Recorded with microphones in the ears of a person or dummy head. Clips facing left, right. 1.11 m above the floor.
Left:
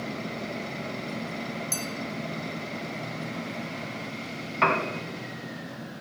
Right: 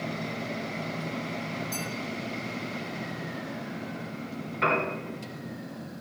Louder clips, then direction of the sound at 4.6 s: Left 1 dB; 65° left (ahead or behind).